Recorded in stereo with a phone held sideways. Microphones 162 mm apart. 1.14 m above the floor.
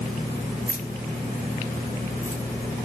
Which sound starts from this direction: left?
Keys jangling, at 0.7 s.